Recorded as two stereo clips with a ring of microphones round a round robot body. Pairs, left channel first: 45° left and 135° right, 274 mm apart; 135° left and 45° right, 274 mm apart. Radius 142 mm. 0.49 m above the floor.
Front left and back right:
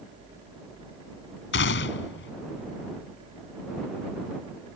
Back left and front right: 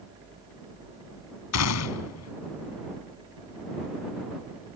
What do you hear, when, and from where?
1.5 s a gunshot: 100° left